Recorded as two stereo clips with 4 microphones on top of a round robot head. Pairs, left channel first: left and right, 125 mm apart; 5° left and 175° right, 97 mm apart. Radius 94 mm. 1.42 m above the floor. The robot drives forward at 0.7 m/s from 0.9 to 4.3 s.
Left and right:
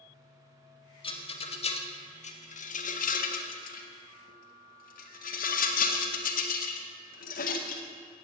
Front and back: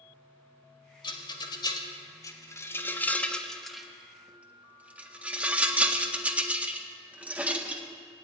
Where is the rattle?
45° left, 2.5 m; by 8.2 s 110° left, 1.7 m.